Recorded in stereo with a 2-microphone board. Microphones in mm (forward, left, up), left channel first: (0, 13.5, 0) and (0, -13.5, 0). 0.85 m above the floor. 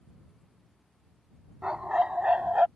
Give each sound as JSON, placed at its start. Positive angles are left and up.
{"t": 1.6, "sound": "a dog barking", "side_deg": -30}